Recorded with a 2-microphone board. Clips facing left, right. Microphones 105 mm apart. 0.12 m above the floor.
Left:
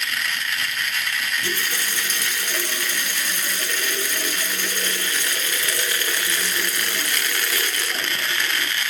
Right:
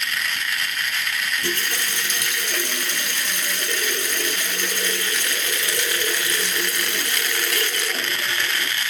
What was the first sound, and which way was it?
A running tap, 65° right (ahead or behind).